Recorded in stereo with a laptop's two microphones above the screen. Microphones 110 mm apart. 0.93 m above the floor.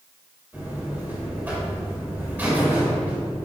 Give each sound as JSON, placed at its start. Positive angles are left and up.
{"t": 0.5, "sound": "a buzzer", "side_deg": -15, "distance_m": 3.0}